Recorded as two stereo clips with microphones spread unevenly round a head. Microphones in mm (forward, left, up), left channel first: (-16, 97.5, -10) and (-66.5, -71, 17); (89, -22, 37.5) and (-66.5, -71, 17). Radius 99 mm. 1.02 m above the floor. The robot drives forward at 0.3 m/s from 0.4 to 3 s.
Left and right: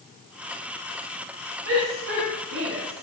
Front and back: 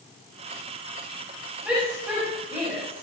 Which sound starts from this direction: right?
A shout, at 1.6 s.